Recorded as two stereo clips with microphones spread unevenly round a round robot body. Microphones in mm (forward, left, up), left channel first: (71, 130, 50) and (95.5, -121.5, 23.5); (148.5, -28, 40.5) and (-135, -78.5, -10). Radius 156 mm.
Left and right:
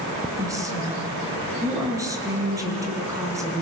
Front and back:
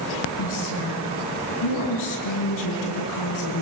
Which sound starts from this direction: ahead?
A woman speaking, at 0.4 s.